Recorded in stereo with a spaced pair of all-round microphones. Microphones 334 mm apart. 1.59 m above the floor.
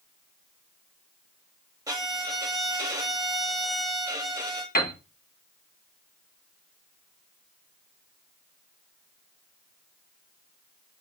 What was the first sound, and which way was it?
A violin, 10° right (ahead or behind).